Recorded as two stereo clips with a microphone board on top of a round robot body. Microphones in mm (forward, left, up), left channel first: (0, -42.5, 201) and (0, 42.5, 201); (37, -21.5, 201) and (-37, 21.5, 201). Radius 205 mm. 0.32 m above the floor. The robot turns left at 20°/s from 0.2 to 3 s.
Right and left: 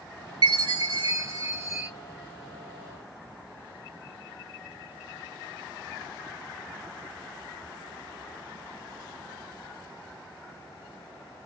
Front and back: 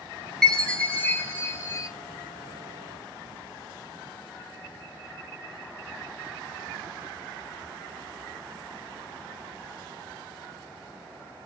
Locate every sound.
0.4 s a chime: 55° left, 0.5 m; by 1.9 s 25° left, 0.5 m